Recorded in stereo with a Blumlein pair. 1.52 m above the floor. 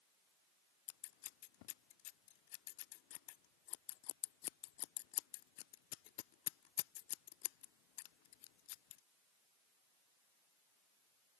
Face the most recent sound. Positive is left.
turn(degrees=45)